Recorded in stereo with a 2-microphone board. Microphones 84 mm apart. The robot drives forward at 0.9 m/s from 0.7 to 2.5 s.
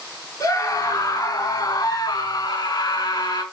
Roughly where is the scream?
Left.